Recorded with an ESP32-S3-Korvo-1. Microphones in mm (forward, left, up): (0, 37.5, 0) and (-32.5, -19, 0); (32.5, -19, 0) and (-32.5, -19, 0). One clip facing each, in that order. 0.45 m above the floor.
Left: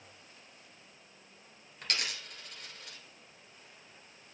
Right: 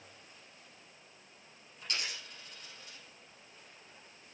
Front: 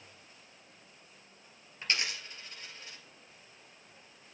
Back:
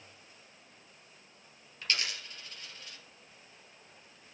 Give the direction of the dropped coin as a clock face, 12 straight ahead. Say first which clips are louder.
Left 3 dB, front 1 dB; 10 o'clock.